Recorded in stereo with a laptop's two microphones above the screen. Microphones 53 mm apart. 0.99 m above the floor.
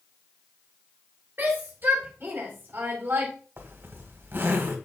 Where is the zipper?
50° right (ahead or behind), 1.7 m.